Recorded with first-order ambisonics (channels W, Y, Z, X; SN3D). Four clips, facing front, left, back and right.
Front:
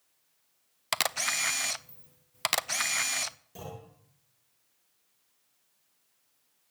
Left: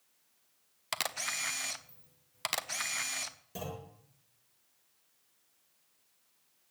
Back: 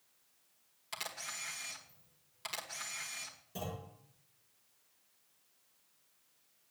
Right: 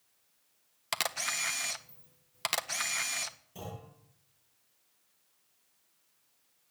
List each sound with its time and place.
0.9 s a camera shutter: 5° right, 0.5 m
3.5 s a clunk: 90° left, 8.5 m